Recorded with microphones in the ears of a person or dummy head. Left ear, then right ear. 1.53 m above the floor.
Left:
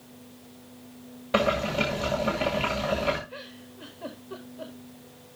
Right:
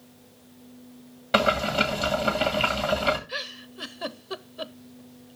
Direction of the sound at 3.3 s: 65° right (ahead or behind).